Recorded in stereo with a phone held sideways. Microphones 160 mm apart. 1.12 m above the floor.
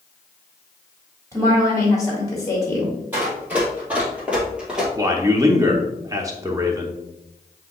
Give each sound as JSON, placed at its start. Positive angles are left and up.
{"t": 1.3, "sound": "a woman speaking", "side_deg": 20, "distance_m": 1.7}
{"t": 3.1, "sound": "running footsteps", "side_deg": -10, "distance_m": 2.5}
{"t": 5.0, "sound": "a man speaking", "side_deg": -20, "distance_m": 0.7}